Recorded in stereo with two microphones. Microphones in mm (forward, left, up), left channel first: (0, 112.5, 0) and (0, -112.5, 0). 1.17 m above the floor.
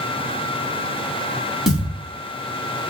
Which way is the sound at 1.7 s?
Centre (ahead or behind).